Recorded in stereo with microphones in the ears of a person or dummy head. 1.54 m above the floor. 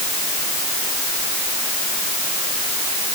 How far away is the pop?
I don't hear a pop.